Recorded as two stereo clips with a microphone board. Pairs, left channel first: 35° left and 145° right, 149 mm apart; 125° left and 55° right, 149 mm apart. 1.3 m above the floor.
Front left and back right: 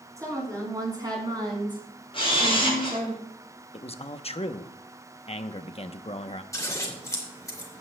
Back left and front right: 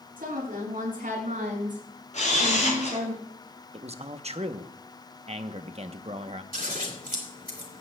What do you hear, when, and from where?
0.2 s a woman speaking: 75° right, 6 m; by 3.1 s 105° right, 5.5 m
2.1 s a camera shutter: 85° left, 5 m
3.7 s a man speaking: 10° right, 0.8 m
6.5 s scissors: 35° right, 2.5 m